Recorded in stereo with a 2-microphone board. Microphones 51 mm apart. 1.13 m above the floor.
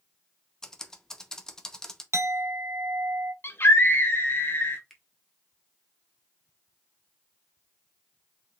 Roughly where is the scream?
Left.